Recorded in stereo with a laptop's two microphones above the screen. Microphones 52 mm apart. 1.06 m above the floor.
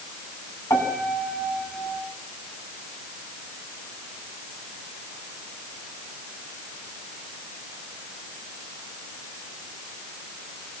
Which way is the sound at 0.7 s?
75° left (ahead or behind).